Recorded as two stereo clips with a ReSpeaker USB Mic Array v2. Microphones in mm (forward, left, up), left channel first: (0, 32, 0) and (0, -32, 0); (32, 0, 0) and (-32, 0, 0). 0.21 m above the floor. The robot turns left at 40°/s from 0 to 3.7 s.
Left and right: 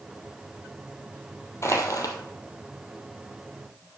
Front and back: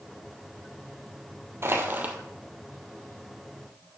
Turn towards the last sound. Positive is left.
turn(degrees=50)